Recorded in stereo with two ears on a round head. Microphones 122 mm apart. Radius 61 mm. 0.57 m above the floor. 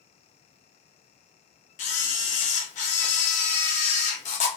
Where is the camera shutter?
55° left (ahead or behind), 0.7 m.